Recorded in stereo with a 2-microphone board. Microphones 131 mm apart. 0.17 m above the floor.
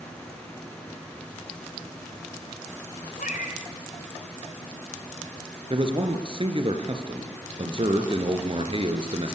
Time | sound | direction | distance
3.2 | a cat meowing | 85° left | 8 m
5.7 | a man speaking | 45° right (ahead or behind) | 3 m